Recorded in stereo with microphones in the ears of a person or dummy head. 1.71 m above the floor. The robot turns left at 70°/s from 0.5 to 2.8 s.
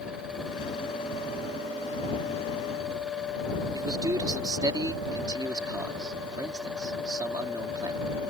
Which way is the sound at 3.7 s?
20° right (ahead or behind).